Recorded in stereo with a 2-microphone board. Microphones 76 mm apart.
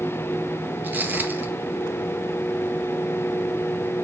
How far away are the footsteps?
About 1.5 m.